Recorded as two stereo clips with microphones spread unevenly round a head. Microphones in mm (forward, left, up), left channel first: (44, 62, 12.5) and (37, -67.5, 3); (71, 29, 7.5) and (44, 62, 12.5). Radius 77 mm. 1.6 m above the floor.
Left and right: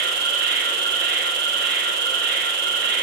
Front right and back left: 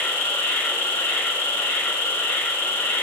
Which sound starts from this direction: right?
An insect, at 0.0 s.